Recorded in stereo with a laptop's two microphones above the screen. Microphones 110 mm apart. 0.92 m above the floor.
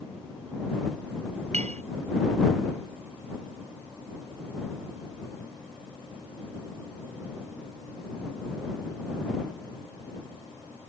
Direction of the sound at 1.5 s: 80° right.